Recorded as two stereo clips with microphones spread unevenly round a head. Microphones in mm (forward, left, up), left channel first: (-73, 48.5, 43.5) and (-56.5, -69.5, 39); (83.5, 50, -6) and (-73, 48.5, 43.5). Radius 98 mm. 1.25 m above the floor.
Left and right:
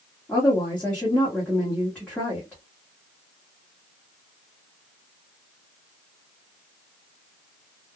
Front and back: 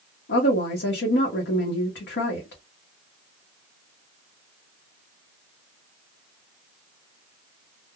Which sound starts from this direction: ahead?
A woman speaking, at 0.3 s.